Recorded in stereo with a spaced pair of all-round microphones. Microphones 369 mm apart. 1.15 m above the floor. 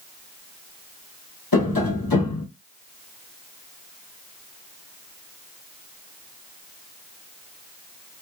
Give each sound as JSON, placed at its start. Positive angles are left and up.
{"t": 1.5, "sound": "tapping", "side_deg": 75, "distance_m": 1.1}